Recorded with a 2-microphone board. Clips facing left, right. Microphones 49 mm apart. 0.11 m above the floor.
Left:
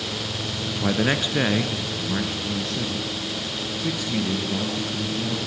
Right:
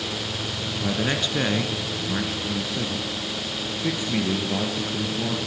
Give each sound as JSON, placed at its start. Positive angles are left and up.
{"t": 0.8, "sound": "a man speaking", "side_deg": 25, "distance_m": 1.6}